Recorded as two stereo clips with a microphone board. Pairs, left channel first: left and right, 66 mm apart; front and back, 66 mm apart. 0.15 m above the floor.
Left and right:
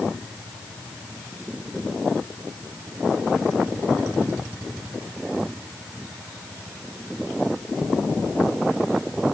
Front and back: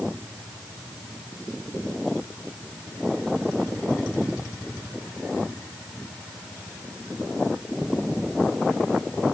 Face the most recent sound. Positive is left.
No sound to turn to.